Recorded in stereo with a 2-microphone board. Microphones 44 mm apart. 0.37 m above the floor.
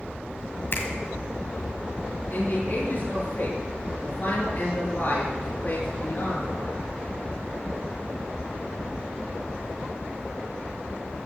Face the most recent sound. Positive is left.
turn(degrees=45)  # may be behind; listen again after turning